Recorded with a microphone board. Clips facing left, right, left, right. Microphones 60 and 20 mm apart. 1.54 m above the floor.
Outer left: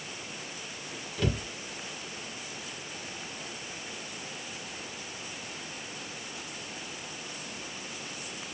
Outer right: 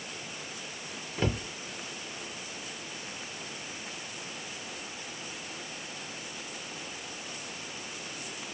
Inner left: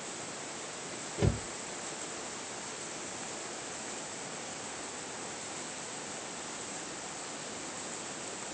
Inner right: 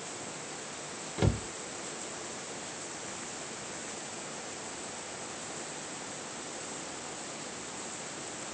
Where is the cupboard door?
30° right (ahead or behind), 1.0 m.